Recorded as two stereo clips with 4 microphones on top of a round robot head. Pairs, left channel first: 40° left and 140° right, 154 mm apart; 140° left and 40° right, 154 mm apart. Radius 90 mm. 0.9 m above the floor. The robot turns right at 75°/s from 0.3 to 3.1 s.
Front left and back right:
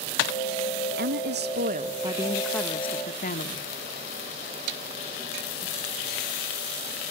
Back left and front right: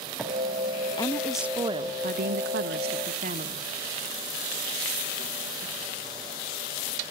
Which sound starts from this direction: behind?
A woman speaking, at 1.0 s.